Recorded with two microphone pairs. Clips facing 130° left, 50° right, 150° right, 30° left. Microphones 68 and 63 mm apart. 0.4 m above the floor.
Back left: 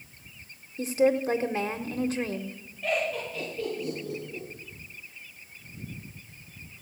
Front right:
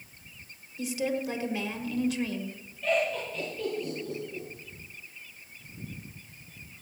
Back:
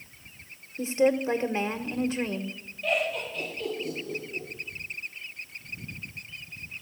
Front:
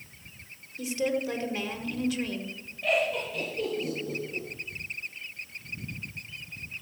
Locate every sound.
0.8 s a woman speaking: 165° left, 1.1 m
2.8 s laughter: 50° left, 8 m